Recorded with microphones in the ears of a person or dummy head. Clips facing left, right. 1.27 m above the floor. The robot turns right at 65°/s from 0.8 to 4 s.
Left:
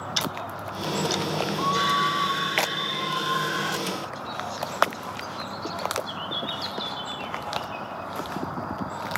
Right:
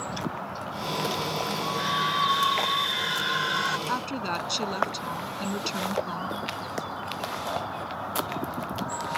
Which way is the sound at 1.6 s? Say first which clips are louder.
Left 3 dB; 100° left.